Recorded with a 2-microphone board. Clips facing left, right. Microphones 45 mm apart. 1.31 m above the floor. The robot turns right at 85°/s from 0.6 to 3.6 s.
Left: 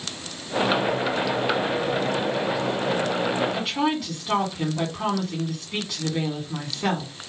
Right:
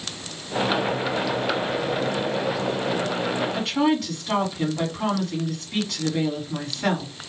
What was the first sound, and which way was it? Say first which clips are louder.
A woman speaking: right 3 dB; 15° left (ahead or behind).